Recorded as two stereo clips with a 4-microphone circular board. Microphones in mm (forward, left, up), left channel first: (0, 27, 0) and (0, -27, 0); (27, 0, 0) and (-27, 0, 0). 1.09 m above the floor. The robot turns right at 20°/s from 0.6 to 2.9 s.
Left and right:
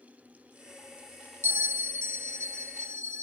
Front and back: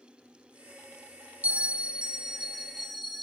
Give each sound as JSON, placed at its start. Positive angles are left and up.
{"t": 1.4, "sound": "a bell", "azimuth_deg": -125, "distance_m": 1.0}